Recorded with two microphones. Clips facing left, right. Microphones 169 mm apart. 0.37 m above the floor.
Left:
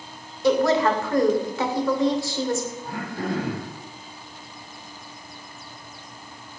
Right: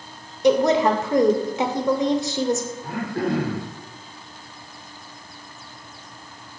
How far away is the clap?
I don't hear a clap.